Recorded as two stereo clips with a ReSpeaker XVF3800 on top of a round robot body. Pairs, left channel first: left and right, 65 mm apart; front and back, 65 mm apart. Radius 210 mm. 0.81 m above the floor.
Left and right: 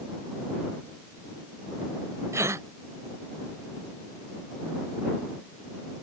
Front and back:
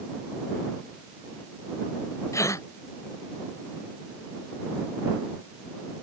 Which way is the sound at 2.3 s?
40° right.